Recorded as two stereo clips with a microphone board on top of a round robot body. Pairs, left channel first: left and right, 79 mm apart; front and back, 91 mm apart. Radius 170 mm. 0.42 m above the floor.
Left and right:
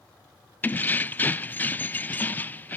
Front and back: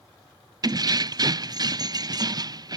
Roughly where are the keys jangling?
Behind left.